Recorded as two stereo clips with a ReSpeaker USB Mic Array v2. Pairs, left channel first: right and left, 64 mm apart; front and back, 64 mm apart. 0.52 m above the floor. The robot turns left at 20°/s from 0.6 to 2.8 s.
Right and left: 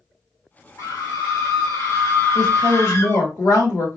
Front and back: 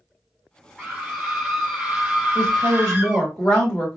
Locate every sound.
0.8 s a scream: 80° right, 2.5 m; by 3.3 s 120° right, 2.5 m
2.4 s a woman speaking: 70° right, 3 m; by 4.0 s 80° right, 3 m